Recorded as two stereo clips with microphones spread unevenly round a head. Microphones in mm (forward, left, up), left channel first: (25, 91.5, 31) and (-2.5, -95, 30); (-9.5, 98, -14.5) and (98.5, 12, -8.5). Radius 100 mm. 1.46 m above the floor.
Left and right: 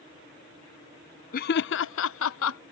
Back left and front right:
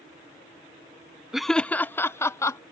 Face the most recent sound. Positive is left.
turn(degrees=70)